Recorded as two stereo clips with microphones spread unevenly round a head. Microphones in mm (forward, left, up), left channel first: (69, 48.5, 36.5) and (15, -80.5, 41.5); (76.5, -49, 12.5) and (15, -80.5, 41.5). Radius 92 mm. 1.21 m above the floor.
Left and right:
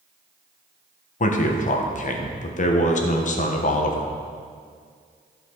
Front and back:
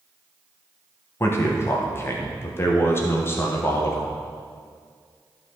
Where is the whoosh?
I don't hear a whoosh.